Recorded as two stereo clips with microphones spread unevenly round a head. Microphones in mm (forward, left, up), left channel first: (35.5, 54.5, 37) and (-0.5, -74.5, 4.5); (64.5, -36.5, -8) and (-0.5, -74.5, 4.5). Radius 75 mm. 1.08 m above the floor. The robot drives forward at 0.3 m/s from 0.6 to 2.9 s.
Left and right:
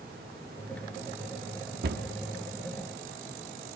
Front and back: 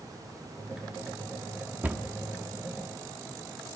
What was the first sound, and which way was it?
A cupboard door, 90° right.